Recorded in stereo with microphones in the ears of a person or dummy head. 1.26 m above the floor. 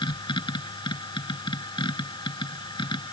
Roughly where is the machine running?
Centre.